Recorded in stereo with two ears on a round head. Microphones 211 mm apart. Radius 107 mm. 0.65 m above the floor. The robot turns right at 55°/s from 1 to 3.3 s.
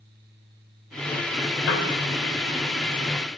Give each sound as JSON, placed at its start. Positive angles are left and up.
{"t": 1.7, "sound": "a piano", "side_deg": 75, "distance_m": 2.5}